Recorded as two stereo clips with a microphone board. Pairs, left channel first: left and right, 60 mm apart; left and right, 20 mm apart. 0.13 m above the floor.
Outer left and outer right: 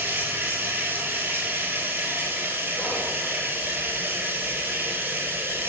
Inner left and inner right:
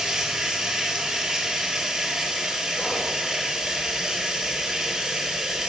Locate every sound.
0.0 s running water: 35° right (ahead or behind), 0.7 m
2.8 s whispering: 45° right (ahead or behind), 1.9 m